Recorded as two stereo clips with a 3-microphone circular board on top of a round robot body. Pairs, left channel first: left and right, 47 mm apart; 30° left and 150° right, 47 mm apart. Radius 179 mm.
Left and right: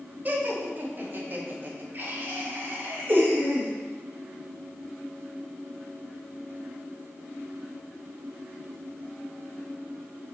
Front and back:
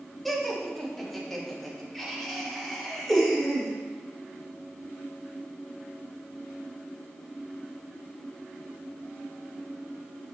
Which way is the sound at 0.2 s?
55° right.